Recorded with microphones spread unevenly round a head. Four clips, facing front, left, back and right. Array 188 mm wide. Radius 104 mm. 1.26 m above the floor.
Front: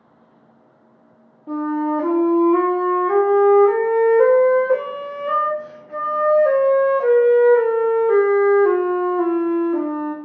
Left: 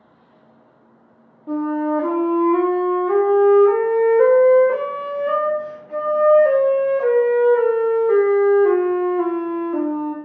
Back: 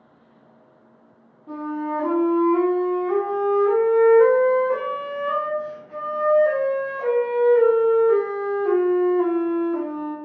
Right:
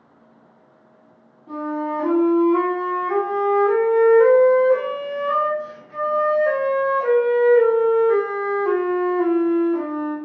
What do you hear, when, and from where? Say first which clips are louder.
1.5 s a flute: left 5 dB, front 6 dB; 55° left, 0.8 m